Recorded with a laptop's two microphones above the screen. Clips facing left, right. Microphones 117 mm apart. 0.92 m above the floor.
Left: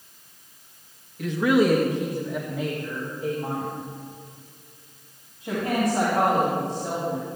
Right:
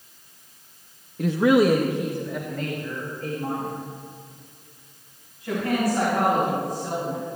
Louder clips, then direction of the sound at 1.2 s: Right 2 dB; 40° right (ahead or behind).